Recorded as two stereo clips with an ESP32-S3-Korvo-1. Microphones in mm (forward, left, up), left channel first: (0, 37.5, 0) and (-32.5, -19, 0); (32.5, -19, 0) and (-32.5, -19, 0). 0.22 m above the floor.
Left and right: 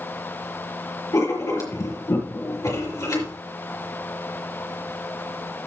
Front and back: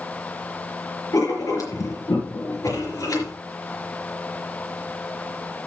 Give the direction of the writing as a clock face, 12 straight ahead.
11 o'clock.